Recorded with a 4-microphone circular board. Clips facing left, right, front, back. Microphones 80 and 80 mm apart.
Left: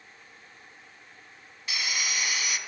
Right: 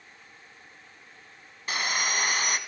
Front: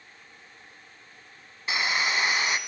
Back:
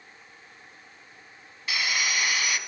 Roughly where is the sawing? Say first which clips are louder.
Right 4 dB, front 2 dB; ahead right.